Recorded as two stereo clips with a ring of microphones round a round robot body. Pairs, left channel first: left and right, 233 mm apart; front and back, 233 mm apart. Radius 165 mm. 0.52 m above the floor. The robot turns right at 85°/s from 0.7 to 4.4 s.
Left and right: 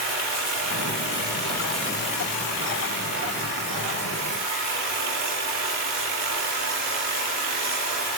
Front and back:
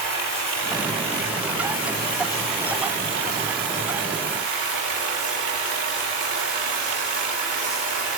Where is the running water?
60° right, 5.5 m; by 8.2 s 110° right, 5.5 m.